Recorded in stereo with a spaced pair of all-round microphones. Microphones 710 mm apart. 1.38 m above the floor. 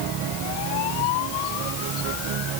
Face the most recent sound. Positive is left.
No sound to turn to.